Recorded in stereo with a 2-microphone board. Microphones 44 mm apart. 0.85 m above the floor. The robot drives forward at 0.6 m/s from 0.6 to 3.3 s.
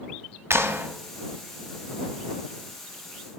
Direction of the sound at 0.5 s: 75° right (ahead or behind).